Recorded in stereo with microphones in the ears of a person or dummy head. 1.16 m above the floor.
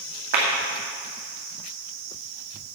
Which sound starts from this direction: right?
A clap, at 0.3 s.